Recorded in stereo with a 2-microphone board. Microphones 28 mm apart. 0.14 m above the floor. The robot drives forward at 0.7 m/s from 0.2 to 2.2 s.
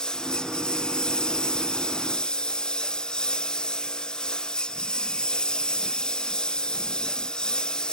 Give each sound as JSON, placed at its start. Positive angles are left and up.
{"t": 0.0, "sound": "a lawn mower", "side_deg": 30}